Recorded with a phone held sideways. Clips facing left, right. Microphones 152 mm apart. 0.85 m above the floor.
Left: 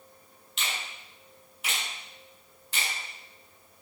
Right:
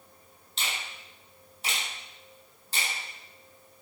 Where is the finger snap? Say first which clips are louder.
Even; 35° right (ahead or behind), 4 m.